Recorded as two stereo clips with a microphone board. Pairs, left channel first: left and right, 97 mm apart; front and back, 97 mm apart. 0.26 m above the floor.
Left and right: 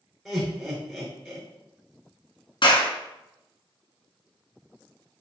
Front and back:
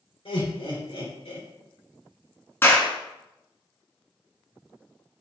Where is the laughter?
10° right, 3 m.